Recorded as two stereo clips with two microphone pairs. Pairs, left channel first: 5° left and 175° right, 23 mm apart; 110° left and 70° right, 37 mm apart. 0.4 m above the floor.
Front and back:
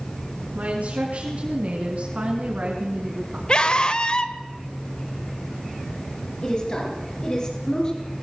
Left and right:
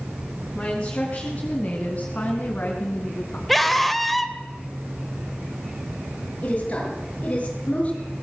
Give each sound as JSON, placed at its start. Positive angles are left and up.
{"t": 0.6, "sound": "a woman speaking", "azimuth_deg": 180, "distance_m": 4.5}
{"t": 3.5, "sound": "a scream", "azimuth_deg": 25, "distance_m": 1.9}
{"t": 6.4, "sound": "a woman speaking", "azimuth_deg": 60, "distance_m": 8.5}